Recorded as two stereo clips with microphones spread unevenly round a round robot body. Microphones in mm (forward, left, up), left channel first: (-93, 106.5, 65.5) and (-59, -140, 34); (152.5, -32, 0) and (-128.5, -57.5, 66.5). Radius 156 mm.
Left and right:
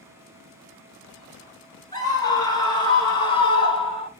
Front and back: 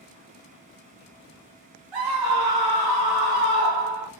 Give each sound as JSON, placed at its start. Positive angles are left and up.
{"t": 1.9, "sound": "a scream", "azimuth_deg": 175, "distance_m": 3.0}